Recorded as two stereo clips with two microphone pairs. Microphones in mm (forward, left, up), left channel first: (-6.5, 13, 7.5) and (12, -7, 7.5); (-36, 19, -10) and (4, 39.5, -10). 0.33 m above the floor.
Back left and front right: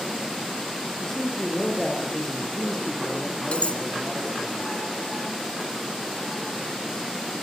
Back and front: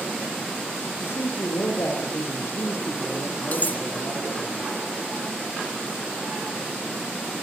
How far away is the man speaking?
About 8.5 m.